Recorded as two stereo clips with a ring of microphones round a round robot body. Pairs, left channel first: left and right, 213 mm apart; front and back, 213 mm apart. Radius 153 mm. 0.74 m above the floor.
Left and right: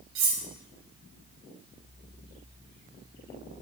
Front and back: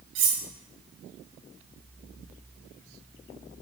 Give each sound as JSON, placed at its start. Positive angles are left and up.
{"t": 0.1, "sound": "cutlery clinking", "azimuth_deg": -135, "distance_m": 0.6}